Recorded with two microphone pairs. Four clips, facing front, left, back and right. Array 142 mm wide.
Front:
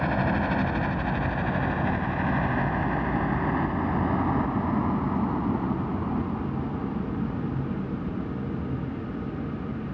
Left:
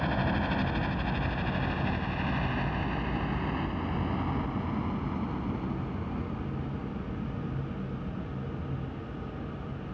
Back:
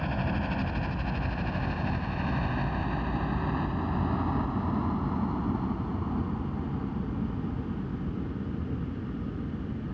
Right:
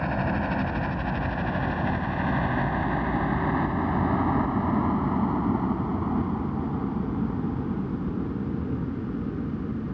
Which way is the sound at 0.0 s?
20° right.